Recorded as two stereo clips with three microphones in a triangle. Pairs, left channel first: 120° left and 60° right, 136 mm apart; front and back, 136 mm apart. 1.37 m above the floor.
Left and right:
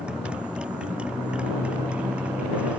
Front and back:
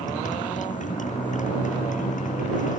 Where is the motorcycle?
25° left; by 2.8 s 20° left.